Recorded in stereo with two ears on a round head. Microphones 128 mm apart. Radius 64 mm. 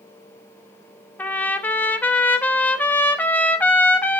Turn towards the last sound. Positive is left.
turn(degrees=10)  # may be behind; listen again after turning